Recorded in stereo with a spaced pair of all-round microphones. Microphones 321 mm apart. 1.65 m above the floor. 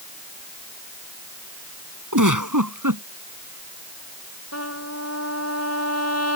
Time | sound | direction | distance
2.1 | a giggle | 80° right | ?
4.5 | a trumpet | 50° left (ahead or behind) | ?